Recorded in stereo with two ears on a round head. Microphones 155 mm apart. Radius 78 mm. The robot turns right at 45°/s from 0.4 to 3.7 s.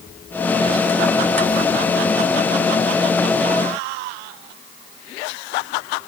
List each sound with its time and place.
Only background noise.